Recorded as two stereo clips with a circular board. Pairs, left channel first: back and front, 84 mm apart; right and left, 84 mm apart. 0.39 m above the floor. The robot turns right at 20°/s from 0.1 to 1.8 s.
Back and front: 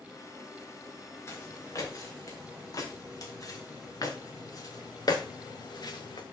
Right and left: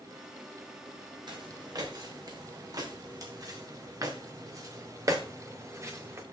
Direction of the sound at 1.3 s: 120° left.